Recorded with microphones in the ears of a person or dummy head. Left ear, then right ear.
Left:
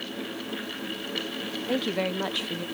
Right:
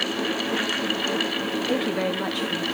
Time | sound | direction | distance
1.7 | a woman speaking | centre (ahead or behind) | 0.6 m